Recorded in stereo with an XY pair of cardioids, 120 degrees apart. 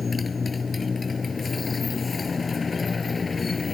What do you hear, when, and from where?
0.0 s a motorcycle: 25° left